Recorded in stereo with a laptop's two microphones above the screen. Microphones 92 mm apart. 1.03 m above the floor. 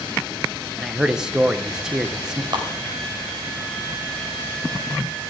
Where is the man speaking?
5° right (ahead or behind), 0.7 m.